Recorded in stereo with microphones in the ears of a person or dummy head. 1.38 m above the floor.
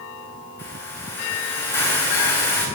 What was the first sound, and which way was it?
A hiss, 15° left (ahead or behind).